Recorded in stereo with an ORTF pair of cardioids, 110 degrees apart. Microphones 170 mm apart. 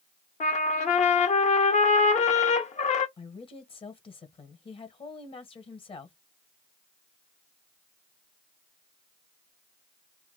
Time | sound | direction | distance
0.4 | a trumpet | 45° left | 1.0 m
3.2 | a woman speaking | 35° left | 1.2 m